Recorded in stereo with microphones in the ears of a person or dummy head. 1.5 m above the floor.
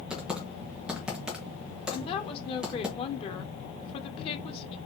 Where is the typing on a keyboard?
Centre (ahead or behind), 0.8 m.